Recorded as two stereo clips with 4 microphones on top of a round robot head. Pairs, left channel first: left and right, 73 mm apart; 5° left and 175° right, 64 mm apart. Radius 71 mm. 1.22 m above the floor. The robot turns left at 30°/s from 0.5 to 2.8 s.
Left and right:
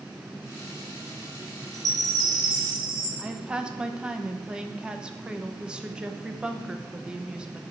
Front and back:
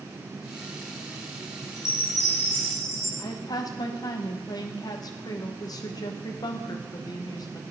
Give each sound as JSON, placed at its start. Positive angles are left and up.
{"t": 1.7, "sound": "a chime", "azimuth_deg": -45, "distance_m": 3.5}
{"t": 3.2, "sound": "a woman speaking", "azimuth_deg": -15, "distance_m": 1.1}